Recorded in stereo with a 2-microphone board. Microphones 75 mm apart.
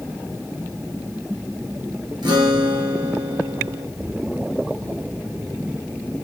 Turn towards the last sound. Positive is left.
turn(degrees=-70)  # may be behind; listen again after turning